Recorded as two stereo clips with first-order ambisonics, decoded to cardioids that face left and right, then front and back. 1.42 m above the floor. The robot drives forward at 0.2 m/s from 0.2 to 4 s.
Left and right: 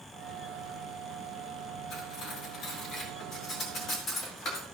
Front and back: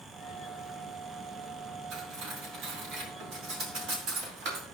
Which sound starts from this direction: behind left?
Cutlery clinking, at 1.9 s.